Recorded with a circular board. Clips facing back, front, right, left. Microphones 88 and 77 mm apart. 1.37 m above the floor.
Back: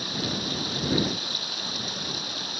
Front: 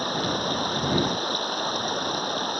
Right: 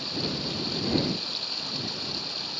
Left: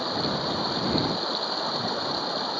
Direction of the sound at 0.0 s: 45° left.